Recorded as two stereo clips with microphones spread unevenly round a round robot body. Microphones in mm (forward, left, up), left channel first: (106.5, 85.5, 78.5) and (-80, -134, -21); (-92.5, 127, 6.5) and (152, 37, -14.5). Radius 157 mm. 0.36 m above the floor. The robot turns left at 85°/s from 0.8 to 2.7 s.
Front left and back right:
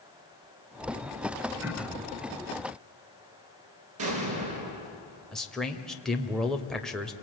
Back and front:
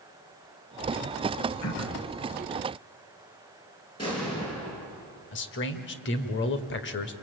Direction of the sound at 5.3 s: 165° left.